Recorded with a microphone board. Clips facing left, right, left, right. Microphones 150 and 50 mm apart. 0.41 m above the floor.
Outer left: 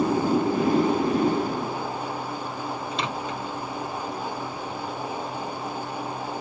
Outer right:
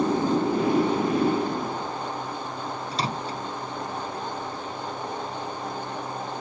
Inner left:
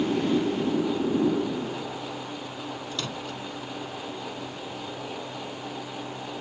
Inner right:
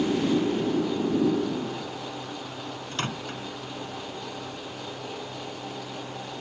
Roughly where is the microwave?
Right.